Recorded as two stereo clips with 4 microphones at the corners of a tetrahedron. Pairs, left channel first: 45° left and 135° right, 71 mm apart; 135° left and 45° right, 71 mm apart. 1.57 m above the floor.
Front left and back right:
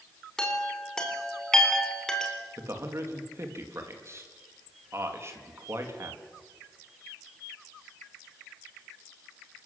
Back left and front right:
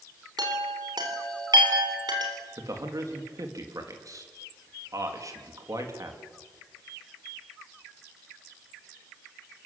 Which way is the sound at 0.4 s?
35° right.